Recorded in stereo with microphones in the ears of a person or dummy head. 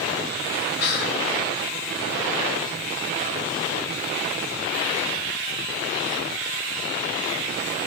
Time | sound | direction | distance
0.8 | whispering | 60° left (ahead or behind) | 0.7 m